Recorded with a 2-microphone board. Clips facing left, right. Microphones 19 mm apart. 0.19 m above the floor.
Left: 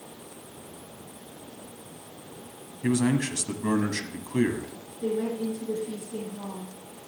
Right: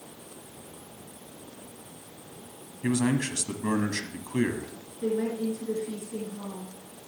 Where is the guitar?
I don't hear a guitar.